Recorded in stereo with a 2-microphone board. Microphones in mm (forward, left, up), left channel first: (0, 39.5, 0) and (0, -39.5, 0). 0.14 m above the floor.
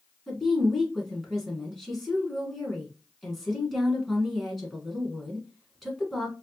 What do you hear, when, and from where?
0.3 s a woman speaking: centre (ahead or behind), 1.3 m